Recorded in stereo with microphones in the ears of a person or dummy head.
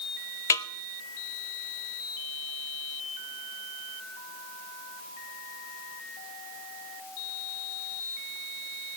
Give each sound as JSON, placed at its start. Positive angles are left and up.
{"t": 0.5, "sound": "a snare drum", "side_deg": 15, "distance_m": 0.6}